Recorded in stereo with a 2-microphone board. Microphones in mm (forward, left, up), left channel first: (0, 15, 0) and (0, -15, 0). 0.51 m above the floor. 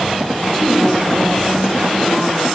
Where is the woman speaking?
25° left (ahead or behind), 5 m; by 2.5 s 35° left (ahead or behind), 6 m.